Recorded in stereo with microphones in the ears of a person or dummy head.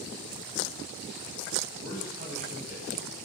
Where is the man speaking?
60° right (ahead or behind), 8 m.